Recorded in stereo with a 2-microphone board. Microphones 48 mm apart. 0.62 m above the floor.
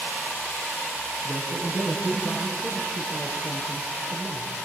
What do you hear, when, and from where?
1.2 s a man speaking: 10° right (ahead or behind), 6.5 m